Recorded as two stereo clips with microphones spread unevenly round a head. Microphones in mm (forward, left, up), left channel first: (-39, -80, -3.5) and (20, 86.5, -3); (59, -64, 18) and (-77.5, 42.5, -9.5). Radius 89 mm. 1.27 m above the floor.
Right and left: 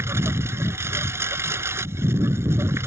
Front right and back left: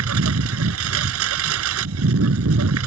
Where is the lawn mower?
145° left.